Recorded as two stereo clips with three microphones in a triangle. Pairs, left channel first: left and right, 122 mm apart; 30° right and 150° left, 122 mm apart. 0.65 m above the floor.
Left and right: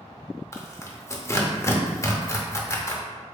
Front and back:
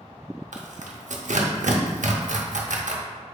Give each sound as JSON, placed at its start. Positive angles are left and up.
{"t": 0.5, "sound": "tearing paper", "azimuth_deg": 155, "distance_m": 0.6}